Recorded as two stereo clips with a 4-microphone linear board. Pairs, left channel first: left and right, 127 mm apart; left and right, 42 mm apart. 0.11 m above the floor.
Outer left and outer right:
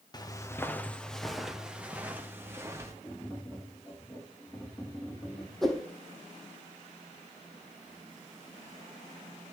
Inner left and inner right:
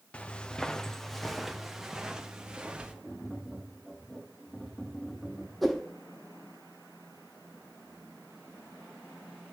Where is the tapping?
15° left (ahead or behind), 7 m.